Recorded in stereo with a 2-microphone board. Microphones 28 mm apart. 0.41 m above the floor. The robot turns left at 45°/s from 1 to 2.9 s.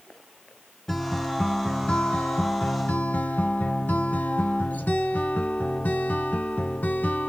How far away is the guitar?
About 1.1 m.